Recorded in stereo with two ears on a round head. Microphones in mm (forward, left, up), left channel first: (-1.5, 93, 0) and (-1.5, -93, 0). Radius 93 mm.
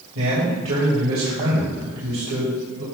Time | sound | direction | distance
0.1 | a man speaking | 70° right (ahead or behind) | 2 m